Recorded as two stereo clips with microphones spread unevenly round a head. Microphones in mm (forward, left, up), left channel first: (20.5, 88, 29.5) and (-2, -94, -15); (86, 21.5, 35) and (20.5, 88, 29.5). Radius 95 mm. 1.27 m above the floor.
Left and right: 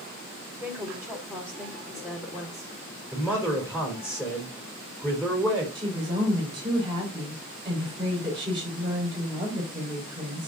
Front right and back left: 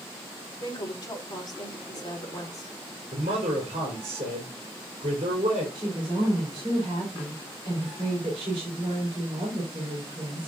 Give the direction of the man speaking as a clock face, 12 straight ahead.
6 o'clock.